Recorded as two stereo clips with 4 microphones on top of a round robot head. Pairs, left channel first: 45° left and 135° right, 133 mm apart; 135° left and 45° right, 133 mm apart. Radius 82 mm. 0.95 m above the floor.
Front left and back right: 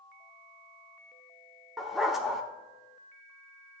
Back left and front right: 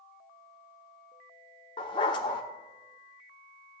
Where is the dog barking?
140° left, 0.5 m.